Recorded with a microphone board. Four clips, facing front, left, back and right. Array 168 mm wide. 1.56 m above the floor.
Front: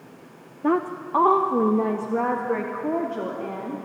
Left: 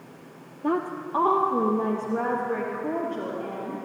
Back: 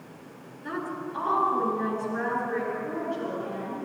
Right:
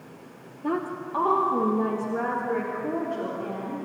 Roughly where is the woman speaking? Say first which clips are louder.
Left 2 dB, front 10 dB; ahead.